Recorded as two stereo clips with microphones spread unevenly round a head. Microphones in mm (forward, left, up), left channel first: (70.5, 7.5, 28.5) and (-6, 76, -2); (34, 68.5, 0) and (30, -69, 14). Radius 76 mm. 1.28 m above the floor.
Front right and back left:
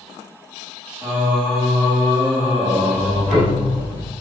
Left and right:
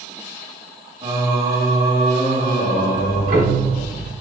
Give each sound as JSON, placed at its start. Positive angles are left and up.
{"t": 1.0, "sound": "singing", "azimuth_deg": -150, "distance_m": 2.0}
{"t": 2.9, "sound": "ticking", "azimuth_deg": -125, "distance_m": 2.0}